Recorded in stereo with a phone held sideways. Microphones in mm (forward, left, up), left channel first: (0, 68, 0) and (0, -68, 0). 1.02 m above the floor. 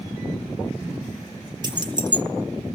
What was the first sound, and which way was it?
Keys jangling, 35° right (ahead or behind).